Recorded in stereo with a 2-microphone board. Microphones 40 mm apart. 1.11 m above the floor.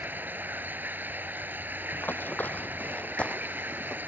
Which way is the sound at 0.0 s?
55° right (ahead or behind).